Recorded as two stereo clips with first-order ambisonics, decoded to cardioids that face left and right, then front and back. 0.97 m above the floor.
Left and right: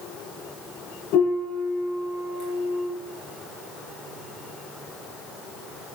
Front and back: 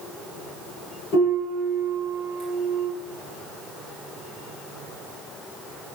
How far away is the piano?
About 9 m.